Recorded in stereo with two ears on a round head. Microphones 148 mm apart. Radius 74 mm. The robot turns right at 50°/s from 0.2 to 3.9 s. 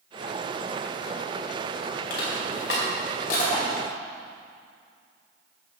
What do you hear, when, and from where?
2.1 s crushing: 65° left (ahead or behind), 4.5 m; by 4.0 s 20° left (ahead or behind), 4.5 m